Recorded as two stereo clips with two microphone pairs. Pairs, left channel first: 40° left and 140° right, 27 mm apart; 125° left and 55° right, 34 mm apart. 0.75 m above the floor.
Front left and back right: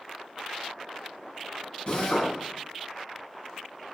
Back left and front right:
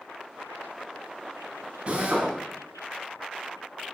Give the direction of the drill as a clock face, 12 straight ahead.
12 o'clock.